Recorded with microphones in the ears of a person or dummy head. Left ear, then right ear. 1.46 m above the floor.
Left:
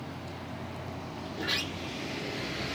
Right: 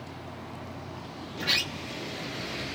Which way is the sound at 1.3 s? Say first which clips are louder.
Right 5 dB; 40° right (ahead or behind).